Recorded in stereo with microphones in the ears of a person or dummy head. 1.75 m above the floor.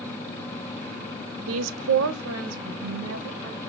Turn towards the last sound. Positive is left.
turn(degrees=-80)